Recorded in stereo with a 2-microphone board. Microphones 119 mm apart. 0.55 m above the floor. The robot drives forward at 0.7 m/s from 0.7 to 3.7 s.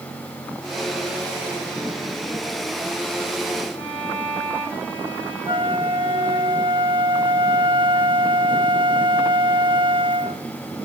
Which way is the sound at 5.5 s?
40° right (ahead or behind).